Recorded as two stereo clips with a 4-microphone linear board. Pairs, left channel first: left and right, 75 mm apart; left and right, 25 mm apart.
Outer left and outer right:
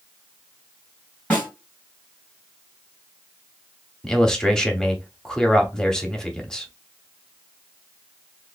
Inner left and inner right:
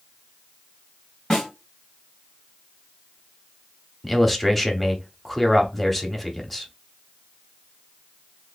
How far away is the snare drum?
About 2 m.